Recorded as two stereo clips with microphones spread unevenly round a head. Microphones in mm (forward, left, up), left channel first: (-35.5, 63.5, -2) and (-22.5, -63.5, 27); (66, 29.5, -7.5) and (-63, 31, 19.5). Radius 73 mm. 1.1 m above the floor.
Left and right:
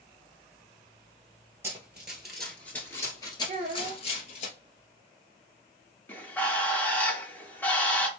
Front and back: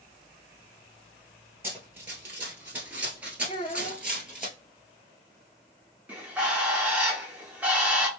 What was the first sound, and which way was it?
Running footsteps, 130° right.